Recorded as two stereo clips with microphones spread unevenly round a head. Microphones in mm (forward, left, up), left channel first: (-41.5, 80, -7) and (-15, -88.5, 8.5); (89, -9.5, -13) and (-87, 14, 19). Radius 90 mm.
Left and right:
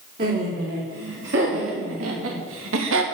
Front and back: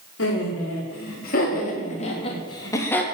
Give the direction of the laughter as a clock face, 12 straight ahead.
1 o'clock.